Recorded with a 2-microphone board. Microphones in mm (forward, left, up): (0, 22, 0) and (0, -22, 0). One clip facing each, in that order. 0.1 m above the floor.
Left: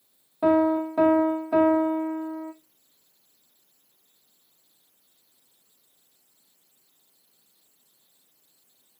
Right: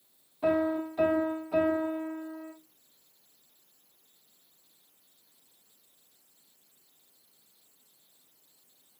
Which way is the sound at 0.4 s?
70° left (ahead or behind).